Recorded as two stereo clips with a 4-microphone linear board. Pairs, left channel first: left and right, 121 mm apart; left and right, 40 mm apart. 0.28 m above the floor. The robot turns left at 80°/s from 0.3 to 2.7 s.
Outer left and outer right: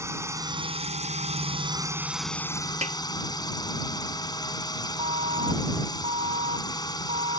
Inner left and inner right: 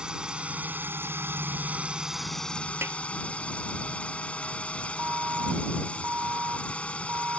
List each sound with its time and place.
0.0 s a drone: 25° right; by 7.4 s 140° left
2.8 s a snare drum: 70° right (ahead or behind)
5.0 s an alarm: 60° right (ahead or behind)